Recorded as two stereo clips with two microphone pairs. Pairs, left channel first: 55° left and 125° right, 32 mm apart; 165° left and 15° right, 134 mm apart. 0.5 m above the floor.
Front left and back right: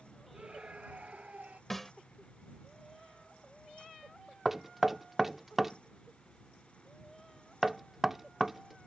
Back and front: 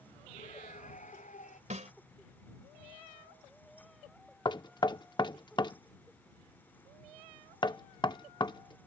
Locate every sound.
0.3 s a scream: 175° right; by 1.6 s 170° right
1.7 s a snare drum: 30° right
4.5 s knocking: 165° left